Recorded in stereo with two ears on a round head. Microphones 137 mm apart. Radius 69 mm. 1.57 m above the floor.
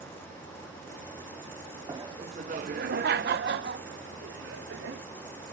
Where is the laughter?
20° right (ahead or behind); by 5.0 s 85° right.